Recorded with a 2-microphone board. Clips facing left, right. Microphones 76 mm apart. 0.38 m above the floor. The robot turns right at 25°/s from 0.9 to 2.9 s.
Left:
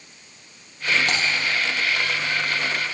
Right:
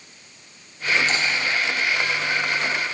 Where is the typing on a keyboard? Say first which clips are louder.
Even; 70° left (ahead or behind), 3.5 m; by 1.2 s 75° left (ahead or behind), 3.5 m.